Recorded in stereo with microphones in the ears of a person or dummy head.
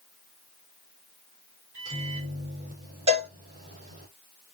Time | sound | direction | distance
1.7 | a microwave | 40° right (ahead or behind) | 3.5 m
3.1 | a cowbell | 30° right (ahead or behind) | 2.5 m